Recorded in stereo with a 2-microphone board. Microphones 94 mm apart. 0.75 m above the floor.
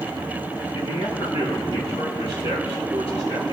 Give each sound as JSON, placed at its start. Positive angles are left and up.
{"t": 0.8, "sound": "a man speaking", "side_deg": 85, "distance_m": 7.0}